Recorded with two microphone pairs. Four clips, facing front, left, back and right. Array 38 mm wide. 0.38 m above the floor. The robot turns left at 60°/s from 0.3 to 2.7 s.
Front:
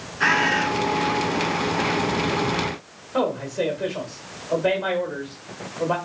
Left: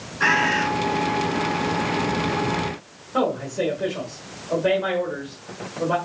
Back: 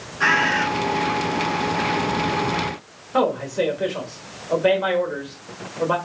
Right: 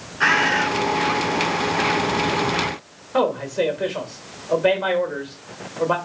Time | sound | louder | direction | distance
0.2 | a bird | right 2 dB, back 1 dB | 100° right | 2.0 m
3.1 | a man speaking | right 2 dB, back 3 dB | 130° right | 1.0 m